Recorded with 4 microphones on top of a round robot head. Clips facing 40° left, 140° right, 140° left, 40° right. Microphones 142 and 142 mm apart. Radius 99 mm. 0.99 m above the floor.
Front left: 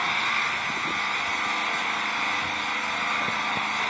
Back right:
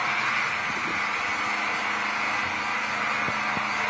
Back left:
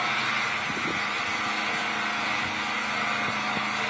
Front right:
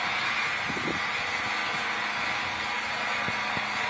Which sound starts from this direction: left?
An engine running, at 0.0 s.